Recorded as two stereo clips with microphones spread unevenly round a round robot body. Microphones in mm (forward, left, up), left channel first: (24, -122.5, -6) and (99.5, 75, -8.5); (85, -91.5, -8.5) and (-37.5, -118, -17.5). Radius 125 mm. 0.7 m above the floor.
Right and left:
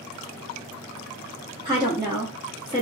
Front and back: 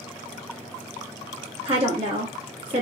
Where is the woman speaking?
130° left, 0.8 m.